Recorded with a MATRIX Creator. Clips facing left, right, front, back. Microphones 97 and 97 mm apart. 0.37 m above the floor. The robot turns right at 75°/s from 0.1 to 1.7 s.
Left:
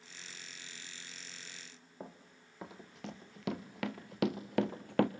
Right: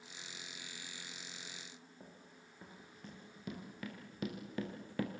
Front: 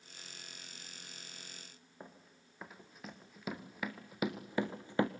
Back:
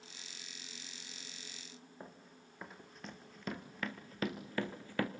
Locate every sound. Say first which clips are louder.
2.0 s running footsteps: left 6 dB, front 1 dB; 90° left, 3 m; by 5.1 s 65° left, 1.2 m